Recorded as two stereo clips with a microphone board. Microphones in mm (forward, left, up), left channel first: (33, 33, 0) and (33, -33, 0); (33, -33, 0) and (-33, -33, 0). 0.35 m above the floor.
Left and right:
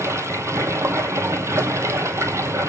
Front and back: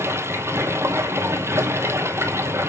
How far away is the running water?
About 1.0 m.